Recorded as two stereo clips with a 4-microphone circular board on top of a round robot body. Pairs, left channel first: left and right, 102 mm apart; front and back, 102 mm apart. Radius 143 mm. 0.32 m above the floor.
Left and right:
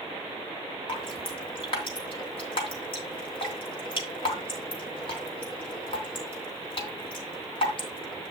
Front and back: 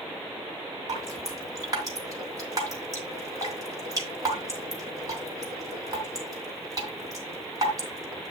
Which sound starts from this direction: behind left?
Dripping, at 0.9 s.